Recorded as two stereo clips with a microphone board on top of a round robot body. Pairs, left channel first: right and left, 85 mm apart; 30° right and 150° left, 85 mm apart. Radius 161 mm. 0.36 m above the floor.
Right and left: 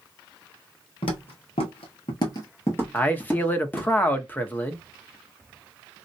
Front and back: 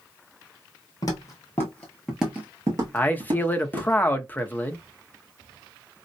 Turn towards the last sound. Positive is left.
turn(degrees=-60)